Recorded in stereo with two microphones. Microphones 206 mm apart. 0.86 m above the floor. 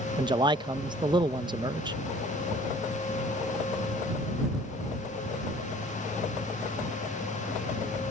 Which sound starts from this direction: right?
A man speaking, at 0.2 s.